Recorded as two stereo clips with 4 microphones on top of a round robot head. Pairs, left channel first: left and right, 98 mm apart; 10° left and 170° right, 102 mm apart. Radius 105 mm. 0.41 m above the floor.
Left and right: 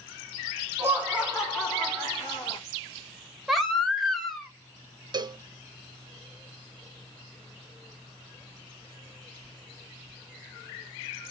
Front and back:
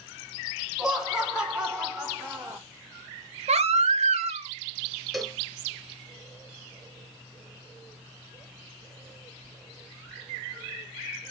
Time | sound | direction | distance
0.8 | laughter | 100° right | 1.2 m
3.5 | a baby crying | straight behind | 0.5 m
5.1 | a cowbell | 80° right | 0.5 m